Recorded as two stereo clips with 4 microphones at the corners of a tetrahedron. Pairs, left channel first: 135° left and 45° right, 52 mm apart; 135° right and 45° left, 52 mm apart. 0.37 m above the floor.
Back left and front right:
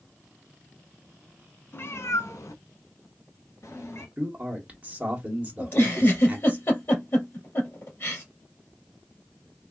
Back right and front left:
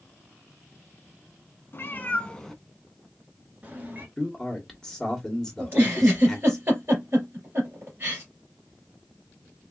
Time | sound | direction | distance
1.7 | a cat meowing | straight behind | 0.6 m
4.2 | a man speaking | 65° right | 1.2 m
5.6 | a giggle | 95° left | 2.5 m